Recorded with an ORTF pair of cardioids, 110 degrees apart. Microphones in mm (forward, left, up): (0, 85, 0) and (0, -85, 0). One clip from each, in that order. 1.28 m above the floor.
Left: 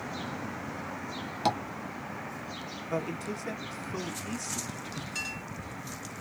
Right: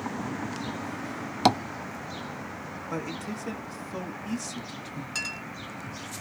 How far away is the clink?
About 2.5 m.